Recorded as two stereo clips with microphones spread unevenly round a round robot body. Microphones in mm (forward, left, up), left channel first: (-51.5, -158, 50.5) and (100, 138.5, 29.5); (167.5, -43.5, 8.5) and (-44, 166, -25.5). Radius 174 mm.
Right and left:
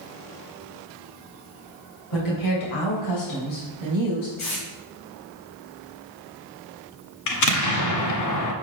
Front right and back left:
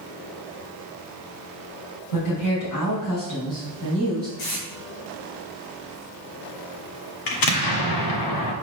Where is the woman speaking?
85° right, 3.5 m; by 4.3 s 115° right, 4 m.